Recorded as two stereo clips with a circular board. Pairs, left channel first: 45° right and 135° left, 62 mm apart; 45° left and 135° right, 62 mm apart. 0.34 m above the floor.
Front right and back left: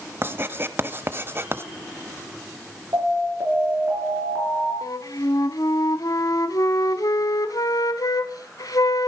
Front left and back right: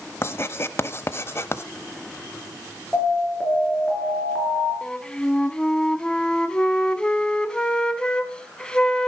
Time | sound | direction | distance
0.2 | writing | 90° left | 0.9 m
2.9 | an alarm | 115° left | 6 m
4.8 | a flute | 30° right | 1.0 m